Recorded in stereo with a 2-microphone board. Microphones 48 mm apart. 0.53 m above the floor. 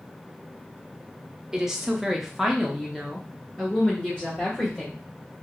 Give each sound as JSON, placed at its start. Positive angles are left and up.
{"t": 1.5, "sound": "a woman speaking", "side_deg": -15, "distance_m": 0.8}